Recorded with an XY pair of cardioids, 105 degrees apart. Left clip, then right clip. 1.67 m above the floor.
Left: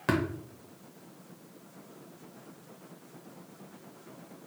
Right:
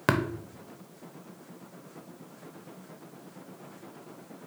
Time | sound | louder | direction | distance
0.1 | tapping | right 3 dB | 50° right | 0.9 m